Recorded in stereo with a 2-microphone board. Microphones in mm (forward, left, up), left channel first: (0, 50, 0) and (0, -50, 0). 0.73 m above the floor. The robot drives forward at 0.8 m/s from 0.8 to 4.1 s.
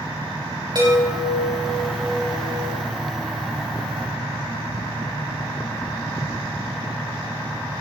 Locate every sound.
0.8 s a chime: 45° right (ahead or behind), 5 m; by 2.8 s 60° right (ahead or behind), 4 m